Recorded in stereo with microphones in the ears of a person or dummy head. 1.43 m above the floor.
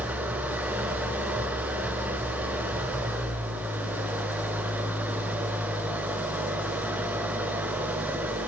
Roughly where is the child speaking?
No child speaking in this recording.